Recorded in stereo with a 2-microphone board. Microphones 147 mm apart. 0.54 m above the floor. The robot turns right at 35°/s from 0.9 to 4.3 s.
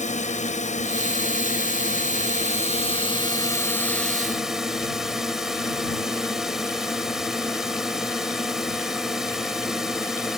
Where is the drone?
65° left; by 10.4 s 175° right.